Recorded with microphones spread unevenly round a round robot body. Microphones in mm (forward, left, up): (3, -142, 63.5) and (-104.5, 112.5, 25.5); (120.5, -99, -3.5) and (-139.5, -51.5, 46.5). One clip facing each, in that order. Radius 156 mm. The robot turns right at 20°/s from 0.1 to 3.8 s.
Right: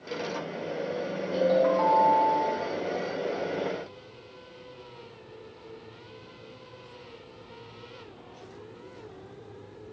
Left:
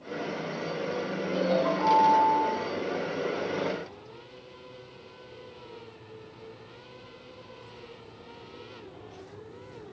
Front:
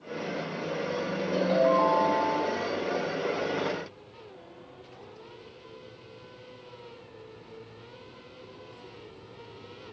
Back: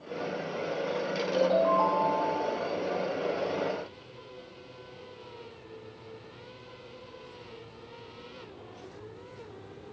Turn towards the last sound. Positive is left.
turn(degrees=15)